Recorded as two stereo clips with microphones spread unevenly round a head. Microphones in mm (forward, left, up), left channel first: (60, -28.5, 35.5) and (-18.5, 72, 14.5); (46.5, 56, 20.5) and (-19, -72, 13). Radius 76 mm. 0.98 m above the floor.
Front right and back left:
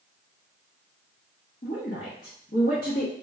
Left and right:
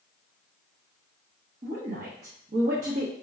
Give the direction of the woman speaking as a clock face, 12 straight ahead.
3 o'clock.